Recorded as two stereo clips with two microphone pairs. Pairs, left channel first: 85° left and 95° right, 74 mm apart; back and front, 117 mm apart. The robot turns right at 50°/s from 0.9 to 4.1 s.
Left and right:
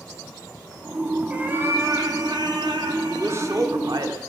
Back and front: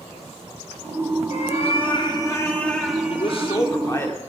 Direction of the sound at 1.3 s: 170° right.